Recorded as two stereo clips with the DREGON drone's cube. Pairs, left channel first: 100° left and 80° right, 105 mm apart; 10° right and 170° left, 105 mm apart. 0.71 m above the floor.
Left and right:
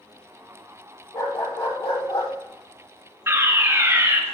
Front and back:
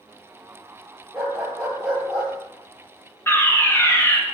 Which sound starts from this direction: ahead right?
A fire alarm, at 3.3 s.